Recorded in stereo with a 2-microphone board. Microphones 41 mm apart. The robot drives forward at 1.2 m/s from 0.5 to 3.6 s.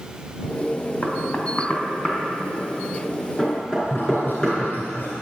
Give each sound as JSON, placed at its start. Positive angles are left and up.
{"t": 1.0, "sound": "knocking", "side_deg": 30, "distance_m": 2.5}
{"t": 3.8, "sound": "laughter", "side_deg": 55, "distance_m": 2.5}